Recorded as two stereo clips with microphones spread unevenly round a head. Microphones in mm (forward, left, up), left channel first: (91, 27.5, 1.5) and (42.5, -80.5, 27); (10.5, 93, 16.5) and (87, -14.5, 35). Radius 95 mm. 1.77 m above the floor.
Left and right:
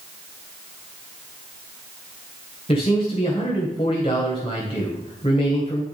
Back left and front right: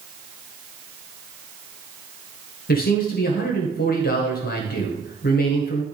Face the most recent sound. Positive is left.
turn(degrees=130)